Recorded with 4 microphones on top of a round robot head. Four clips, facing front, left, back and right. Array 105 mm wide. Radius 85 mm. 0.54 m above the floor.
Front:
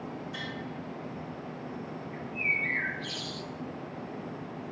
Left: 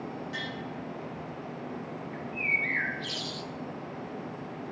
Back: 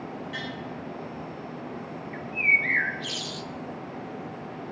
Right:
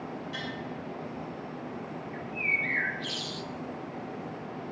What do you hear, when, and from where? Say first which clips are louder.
0.3 s tapping: even, back 4 dB; 155° left, 6 m
2.1 s a bird: even, back 8 dB; 175° left, 0.9 m